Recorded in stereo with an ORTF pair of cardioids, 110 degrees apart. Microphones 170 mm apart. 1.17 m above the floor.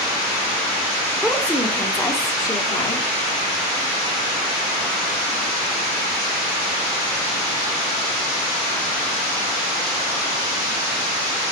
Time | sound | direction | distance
1.2 | a woman speaking | 5° left | 3 m